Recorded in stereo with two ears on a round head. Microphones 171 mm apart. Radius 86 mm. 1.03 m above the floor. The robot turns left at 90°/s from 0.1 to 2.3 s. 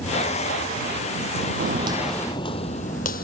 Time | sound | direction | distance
1.6 | footsteps | 50° right (ahead or behind) | ?